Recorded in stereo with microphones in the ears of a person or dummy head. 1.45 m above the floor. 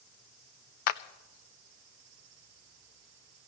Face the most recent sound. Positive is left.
turn(degrees=45)  # may be behind; listen again after turning